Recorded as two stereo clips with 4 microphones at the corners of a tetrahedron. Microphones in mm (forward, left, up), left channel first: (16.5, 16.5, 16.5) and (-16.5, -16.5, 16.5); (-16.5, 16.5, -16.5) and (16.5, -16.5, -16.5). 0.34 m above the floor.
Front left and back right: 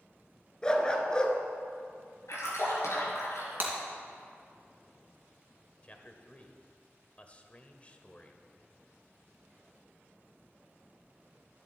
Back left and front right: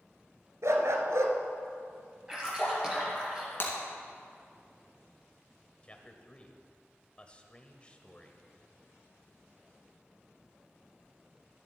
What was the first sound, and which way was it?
A dog barking, 30° right.